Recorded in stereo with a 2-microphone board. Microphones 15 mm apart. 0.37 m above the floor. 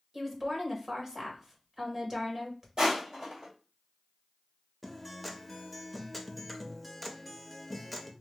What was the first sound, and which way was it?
A woman speaking, 35° right (ahead or behind).